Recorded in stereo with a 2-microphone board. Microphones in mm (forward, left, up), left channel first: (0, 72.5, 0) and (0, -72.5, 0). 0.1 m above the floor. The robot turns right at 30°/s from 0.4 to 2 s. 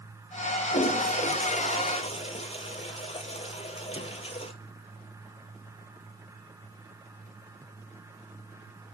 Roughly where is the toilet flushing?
Left.